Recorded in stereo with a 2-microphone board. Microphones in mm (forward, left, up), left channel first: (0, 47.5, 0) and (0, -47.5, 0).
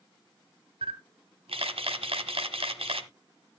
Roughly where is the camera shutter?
Right.